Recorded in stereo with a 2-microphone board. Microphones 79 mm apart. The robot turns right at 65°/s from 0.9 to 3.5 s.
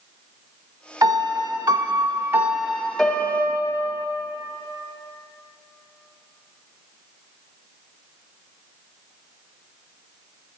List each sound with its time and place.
1.0 s a piano: 120° right, 0.5 m; by 4.1 s 40° left, 0.5 m